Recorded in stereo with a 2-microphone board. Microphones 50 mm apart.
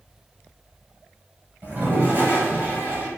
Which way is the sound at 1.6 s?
35° right (ahead or behind).